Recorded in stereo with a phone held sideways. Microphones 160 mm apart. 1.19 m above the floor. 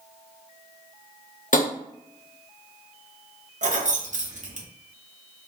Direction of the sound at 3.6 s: 55° right (ahead or behind).